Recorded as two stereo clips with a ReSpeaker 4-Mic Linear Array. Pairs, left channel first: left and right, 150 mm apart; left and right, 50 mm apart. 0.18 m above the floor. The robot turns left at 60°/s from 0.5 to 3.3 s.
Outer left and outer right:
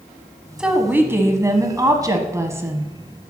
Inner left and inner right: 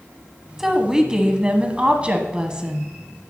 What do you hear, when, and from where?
0.6 s a woman speaking: 5° right (ahead or behind), 1.1 m; by 2.9 s 10° right (ahead or behind), 1.1 m